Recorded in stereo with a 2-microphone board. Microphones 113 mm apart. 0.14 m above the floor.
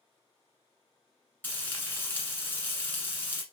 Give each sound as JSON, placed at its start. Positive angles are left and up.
{"t": 1.4, "sound": "frying", "side_deg": 15, "distance_m": 1.4}